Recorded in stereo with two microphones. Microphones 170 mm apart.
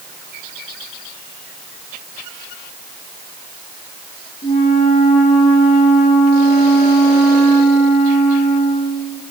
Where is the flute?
55° left (ahead or behind), 7.5 m.